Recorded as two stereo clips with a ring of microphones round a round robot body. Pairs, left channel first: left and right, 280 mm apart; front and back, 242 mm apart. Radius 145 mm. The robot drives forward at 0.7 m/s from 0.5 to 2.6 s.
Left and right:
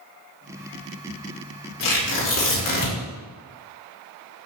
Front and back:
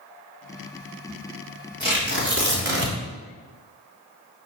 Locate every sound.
1.8 s tearing paper: 135° left, 4.5 m; by 3.0 s 140° left, 5 m